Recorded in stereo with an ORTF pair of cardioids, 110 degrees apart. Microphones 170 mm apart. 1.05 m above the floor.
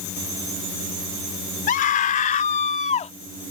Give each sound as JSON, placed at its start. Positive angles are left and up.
{"t": 1.7, "sound": "a scream", "azimuth_deg": 50}